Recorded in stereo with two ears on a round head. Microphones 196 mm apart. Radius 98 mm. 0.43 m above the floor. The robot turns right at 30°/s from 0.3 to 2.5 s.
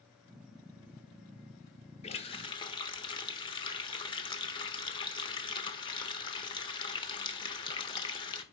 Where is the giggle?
I don't hear a giggle.